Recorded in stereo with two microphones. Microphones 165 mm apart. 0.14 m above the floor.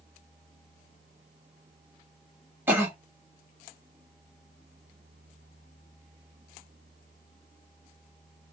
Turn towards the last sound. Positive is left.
turn(degrees=-15)  # may be behind; listen again after turning